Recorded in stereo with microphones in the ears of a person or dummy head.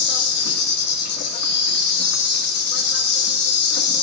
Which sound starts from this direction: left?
An insect, at 0.0 s.